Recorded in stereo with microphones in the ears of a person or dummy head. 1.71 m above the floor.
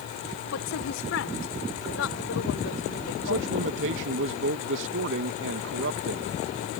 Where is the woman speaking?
75° left (ahead or behind); by 3.5 s 65° left (ahead or behind).